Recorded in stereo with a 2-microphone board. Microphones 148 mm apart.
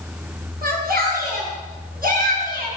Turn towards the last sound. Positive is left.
turn(degrees=-80)